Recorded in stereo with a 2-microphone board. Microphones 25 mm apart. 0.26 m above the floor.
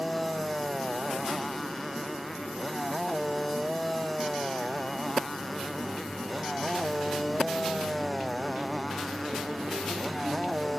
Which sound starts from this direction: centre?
A motorcycle, at 0.0 s.